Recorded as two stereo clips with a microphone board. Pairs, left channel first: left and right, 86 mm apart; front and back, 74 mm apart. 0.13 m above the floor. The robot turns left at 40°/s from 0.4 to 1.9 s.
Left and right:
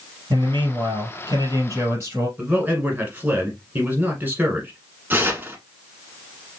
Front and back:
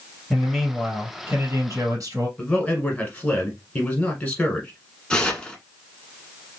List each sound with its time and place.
0.3 s a man speaking: 85° right, 2.5 m; by 2.3 s 145° right, 2.5 m
2.4 s a man speaking: 50° right, 1.3 m
5.1 s tearing paper: 60° right, 1.0 m